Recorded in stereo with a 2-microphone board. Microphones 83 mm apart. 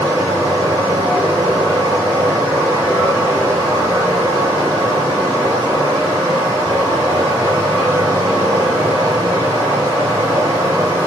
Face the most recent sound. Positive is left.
turn(degrees=-35)  # may be behind; listen again after turning